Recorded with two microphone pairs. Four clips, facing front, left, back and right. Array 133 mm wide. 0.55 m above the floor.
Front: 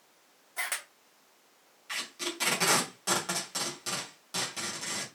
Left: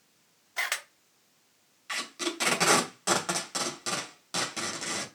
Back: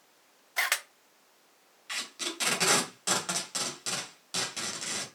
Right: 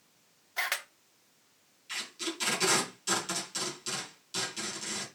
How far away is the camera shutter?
About 1.0 m.